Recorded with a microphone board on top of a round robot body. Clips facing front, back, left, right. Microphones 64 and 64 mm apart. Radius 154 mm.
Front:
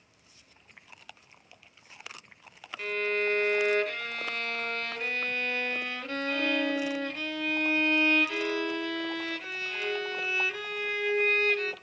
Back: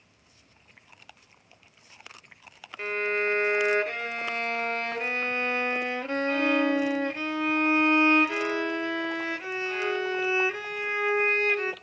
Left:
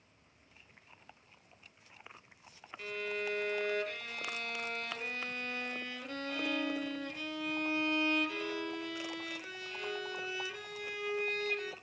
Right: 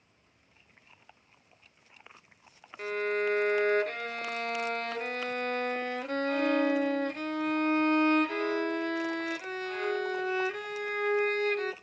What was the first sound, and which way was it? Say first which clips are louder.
A violin: back 2 dB, right 9 dB; 120° right.